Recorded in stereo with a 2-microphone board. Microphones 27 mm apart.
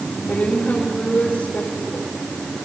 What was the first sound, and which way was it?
A woman speaking, 75° left (ahead or behind).